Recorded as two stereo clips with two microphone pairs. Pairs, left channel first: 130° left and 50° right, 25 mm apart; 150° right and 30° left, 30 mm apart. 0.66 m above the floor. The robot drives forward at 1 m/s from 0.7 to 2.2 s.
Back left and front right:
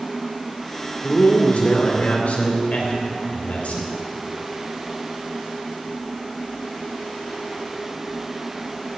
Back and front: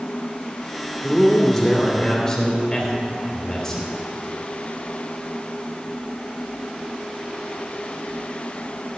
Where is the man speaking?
120° left, 2 m; by 3.9 s 145° left, 2.5 m.